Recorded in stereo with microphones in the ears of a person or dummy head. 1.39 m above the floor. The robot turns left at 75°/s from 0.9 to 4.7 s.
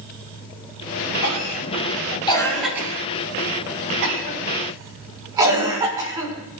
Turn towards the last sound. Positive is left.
turn(degrees=-20)  # may be behind; listen again after turning